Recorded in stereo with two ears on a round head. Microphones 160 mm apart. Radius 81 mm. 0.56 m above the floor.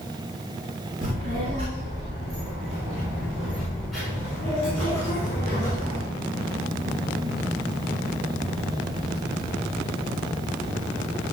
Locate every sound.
1.0 s a child speaking: 45° right (ahead or behind), 4.5 m; by 6.0 s 20° left (ahead or behind), 6 m